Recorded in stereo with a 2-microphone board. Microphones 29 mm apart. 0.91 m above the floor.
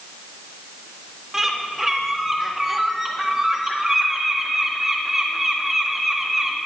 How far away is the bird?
About 1.7 m.